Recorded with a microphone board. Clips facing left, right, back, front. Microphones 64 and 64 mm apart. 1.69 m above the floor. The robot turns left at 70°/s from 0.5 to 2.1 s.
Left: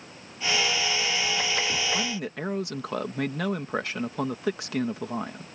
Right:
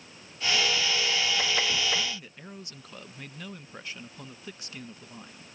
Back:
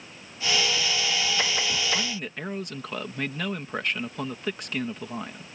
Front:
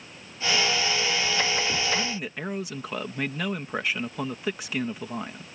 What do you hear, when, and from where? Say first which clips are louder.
1.9 s a man speaking: left 5 dB, front 1 dB; 95° left; by 5.5 s 85° left